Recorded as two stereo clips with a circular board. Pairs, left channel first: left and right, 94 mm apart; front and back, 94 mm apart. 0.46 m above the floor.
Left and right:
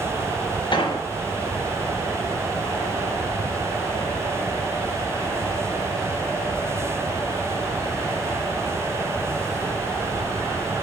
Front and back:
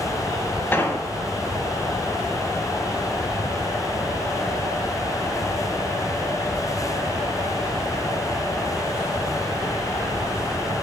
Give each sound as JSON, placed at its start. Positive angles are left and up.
{"t": 0.7, "sound": "an explosion", "azimuth_deg": 65, "distance_m": 0.6}